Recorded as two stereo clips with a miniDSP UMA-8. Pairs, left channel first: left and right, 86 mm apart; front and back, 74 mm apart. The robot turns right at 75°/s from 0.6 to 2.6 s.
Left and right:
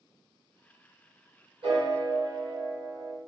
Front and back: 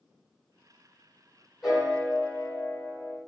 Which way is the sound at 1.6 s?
95° right.